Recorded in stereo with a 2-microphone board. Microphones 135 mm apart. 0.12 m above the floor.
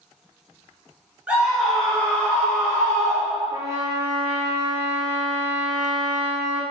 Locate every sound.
1.3 s a scream: 10° right (ahead or behind), 1.2 m; by 3.6 s 35° left (ahead or behind), 1.7 m
3.5 s a trumpet: 30° right (ahead or behind), 0.7 m